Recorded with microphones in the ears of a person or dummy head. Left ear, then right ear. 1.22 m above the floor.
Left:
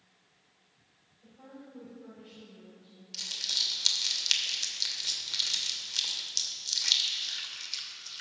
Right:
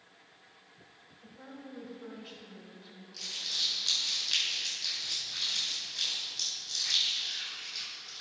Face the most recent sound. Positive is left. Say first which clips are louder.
# left 3 dB
turn(degrees=75)  # may be behind; listen again after turning